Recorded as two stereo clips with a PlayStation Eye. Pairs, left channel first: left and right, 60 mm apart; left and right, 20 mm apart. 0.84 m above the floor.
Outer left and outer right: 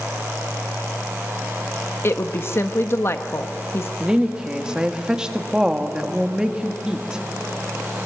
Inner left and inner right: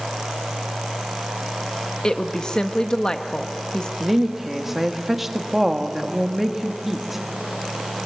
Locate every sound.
2.0 s a woman speaking: 45° left (ahead or behind), 1.0 m
4.0 s a woman speaking: 15° right (ahead or behind), 1.7 m